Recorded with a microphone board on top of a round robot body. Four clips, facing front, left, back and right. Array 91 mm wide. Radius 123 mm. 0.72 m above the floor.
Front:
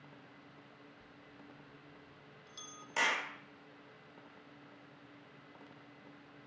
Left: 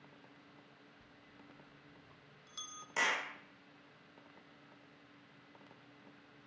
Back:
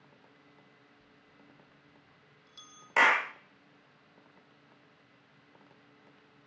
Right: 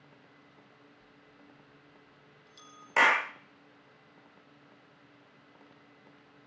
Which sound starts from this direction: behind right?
A clap, at 3.0 s.